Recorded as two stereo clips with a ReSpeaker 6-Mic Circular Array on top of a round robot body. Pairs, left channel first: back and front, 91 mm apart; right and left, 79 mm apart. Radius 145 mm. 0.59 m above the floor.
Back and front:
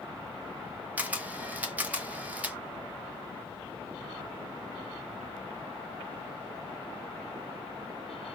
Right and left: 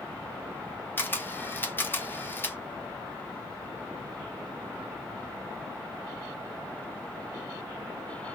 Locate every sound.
1.0 s a camera shutter: 60° right, 1.1 m